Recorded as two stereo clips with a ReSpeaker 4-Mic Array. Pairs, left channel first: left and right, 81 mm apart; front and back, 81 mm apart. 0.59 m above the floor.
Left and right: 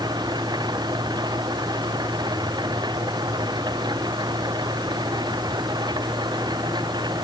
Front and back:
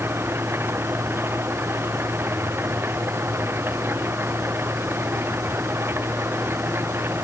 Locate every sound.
0.0 s an engine running: 115° right